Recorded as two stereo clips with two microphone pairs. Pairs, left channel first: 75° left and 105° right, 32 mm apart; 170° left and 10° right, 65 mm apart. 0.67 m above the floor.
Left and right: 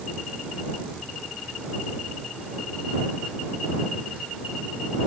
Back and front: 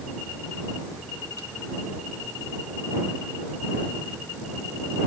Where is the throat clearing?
No throat clearing in this recording.